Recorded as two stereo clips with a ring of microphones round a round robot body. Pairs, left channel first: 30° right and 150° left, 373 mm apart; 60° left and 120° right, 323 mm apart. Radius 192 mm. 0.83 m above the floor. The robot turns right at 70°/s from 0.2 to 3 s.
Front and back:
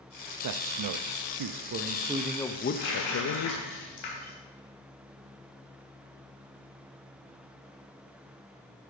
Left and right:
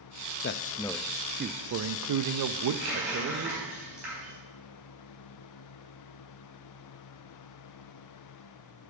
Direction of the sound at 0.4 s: 110° left.